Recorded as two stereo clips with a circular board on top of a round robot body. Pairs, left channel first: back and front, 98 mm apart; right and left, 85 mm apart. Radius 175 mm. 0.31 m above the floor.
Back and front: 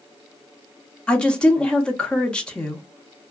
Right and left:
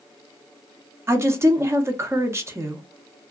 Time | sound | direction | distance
1.1 | a woman speaking | 105° left | 1.0 m